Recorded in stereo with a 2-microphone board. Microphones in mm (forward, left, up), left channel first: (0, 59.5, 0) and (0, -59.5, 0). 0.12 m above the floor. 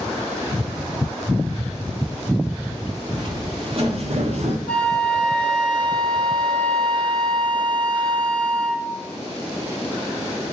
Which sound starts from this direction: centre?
A flute, at 4.7 s.